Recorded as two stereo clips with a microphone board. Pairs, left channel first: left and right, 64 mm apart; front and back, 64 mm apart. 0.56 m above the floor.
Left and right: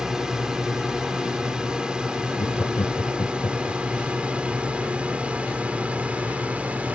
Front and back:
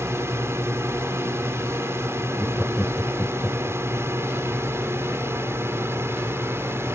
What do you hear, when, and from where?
0.0 s a drone: 165° right; by 7.0 s 150° right
2.4 s laughter: 105° left